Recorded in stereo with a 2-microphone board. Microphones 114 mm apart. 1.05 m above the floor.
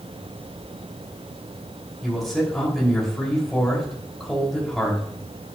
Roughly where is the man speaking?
Centre.